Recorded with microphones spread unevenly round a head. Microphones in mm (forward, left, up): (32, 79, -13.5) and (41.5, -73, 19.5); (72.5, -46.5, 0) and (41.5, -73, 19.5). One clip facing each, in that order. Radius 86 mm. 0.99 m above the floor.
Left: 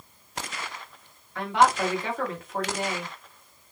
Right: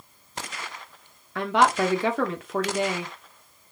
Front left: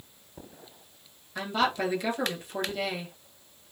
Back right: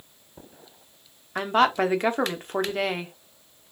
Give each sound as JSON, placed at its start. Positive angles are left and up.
{"t": 1.4, "sound": "a woman speaking", "azimuth_deg": -85, "distance_m": 1.0}